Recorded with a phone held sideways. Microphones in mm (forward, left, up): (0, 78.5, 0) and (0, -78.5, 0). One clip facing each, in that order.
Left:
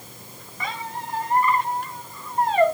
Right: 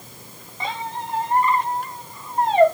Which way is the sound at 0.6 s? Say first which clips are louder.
Right 3 dB; 25° right (ahead or behind).